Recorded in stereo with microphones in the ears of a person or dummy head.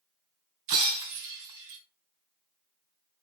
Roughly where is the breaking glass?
Right.